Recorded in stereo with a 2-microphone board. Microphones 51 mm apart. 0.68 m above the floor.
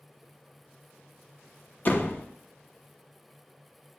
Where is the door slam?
40° left (ahead or behind), 0.7 m.